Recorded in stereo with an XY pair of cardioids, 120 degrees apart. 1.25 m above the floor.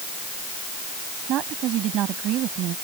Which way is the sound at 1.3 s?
70° right.